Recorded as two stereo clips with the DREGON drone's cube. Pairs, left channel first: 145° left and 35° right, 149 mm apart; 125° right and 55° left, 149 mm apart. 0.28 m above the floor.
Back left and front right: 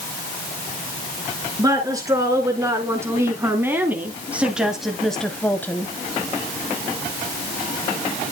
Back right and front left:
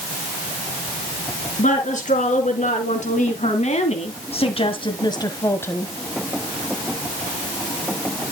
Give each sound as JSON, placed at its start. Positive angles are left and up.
{"t": 1.6, "sound": "a woman speaking", "azimuth_deg": -100, "distance_m": 4.0}